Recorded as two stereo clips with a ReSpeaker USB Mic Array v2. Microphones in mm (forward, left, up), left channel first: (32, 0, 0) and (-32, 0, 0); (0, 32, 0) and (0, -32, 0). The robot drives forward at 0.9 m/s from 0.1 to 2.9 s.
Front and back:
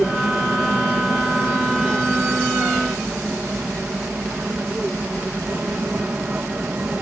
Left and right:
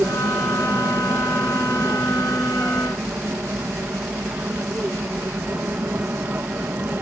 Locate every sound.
0.0 s an aircraft: 120° right; by 7.0 s 130° right